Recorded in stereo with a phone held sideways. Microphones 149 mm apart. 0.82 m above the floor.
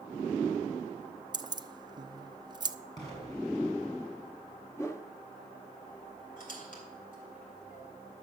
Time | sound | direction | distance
1.3 | keys jangling | 30° right (ahead or behind) | 0.5 m
3.0 | an explosion | 25° left (ahead or behind) | 5.5 m
4.8 | a whoosh | 20° left (ahead or behind) | 0.9 m
6.4 | a squeak | 65° left (ahead or behind) | 3 m